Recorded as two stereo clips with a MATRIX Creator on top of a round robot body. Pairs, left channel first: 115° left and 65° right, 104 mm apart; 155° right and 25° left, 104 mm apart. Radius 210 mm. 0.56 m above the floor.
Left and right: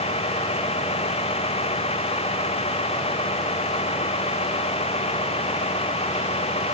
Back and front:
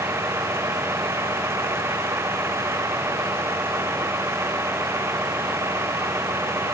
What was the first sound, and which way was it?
A vehicle, 90° left.